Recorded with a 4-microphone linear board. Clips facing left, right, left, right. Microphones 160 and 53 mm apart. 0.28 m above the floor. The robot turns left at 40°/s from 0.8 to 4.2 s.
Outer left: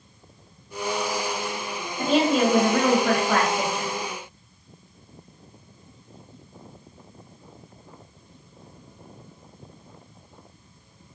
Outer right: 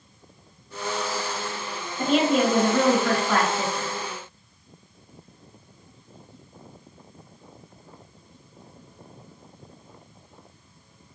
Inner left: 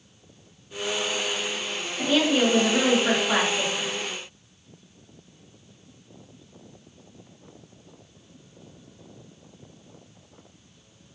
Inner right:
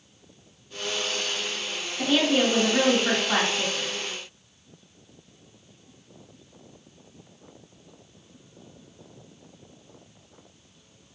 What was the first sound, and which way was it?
A woman speaking, centre (ahead or behind).